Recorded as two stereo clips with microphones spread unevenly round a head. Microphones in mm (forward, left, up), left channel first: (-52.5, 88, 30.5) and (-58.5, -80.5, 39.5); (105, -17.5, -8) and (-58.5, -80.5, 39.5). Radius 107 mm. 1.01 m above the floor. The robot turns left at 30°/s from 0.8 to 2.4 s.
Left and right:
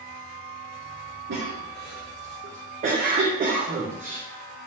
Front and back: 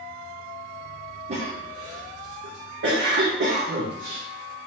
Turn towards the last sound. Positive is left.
turn(degrees=-130)